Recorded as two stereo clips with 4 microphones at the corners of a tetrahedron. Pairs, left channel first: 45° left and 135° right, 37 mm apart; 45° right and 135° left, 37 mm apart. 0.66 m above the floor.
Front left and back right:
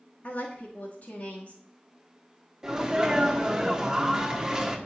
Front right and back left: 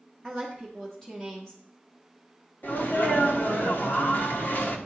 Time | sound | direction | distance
0.2 | a woman speaking | 30° left | 1.3 m
2.6 | a sneeze | 65° right | 1.2 m